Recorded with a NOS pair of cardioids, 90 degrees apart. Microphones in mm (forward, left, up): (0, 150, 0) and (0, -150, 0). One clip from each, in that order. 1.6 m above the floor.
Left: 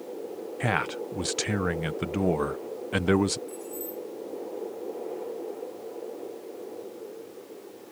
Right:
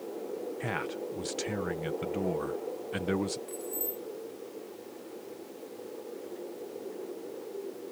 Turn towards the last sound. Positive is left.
turn(degrees=-20)